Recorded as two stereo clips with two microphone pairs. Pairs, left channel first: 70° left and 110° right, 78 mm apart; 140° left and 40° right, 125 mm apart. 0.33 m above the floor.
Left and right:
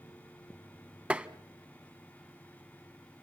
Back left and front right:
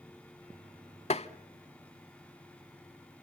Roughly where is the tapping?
Behind.